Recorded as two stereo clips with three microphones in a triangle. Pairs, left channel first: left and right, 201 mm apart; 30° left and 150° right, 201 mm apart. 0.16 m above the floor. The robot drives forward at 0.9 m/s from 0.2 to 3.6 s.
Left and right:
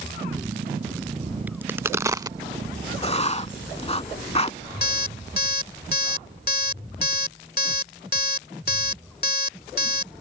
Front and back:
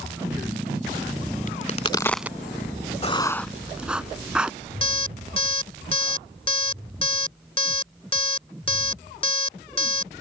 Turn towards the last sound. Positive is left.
turn(degrees=80)